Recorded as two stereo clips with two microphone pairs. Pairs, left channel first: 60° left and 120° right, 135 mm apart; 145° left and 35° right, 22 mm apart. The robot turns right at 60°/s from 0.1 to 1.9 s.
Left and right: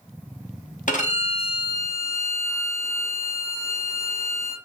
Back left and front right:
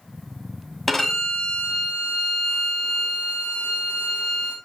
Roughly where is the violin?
Ahead left.